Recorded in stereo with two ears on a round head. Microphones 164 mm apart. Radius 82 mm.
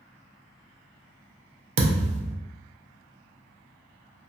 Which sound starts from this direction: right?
A thud, at 1.8 s.